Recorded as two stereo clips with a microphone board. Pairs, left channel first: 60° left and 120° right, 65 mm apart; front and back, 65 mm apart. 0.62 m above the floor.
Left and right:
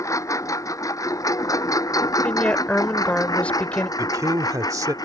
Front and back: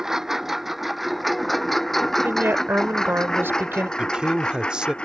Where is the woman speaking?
130° left.